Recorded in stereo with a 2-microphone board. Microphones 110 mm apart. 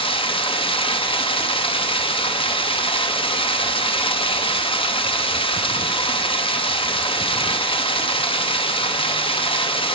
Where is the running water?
55° left (ahead or behind), 0.9 m.